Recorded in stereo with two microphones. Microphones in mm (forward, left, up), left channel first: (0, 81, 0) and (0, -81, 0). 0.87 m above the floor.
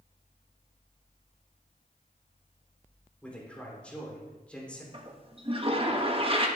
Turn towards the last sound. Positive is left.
turn(degrees=-35)  # may be behind; listen again after turning